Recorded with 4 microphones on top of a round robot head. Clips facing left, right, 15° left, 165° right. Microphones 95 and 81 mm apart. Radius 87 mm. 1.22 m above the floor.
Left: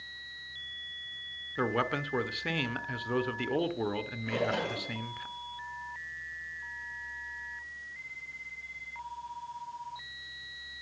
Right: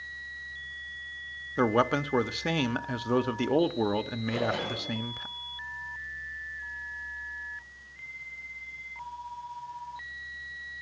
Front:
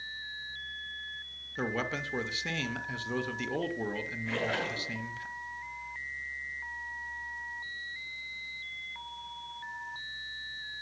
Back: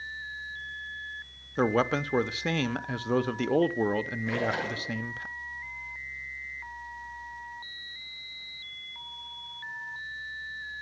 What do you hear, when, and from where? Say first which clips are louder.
1.6 s a man speaking: right 6 dB, back 8 dB; 145° right, 0.9 m
4.3 s a splash: left 1 dB, back 1 dB; 120° left, 6.5 m